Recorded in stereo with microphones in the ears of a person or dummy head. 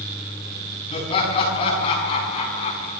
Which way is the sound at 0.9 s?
35° left (ahead or behind).